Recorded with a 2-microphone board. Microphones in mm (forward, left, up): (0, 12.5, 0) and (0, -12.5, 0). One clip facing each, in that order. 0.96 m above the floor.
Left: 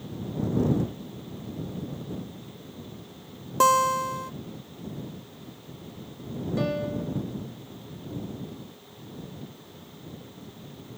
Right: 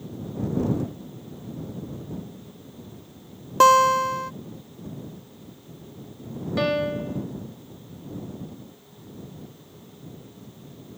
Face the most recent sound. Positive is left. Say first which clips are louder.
# right 6 dB
turn(degrees=-45)  # may be behind; listen again after turning